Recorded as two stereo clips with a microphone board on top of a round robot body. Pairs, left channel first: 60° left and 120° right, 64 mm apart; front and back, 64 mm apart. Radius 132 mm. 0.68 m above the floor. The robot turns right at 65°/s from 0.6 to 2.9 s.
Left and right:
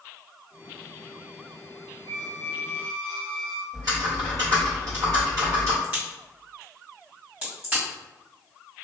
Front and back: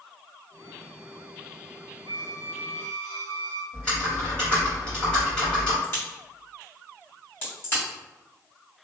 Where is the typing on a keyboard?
80° right, 1.8 m.